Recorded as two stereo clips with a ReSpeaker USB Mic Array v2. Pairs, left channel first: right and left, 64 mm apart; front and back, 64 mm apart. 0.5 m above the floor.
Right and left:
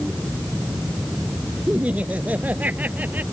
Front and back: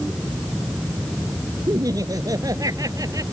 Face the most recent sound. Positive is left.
turn(degrees=150)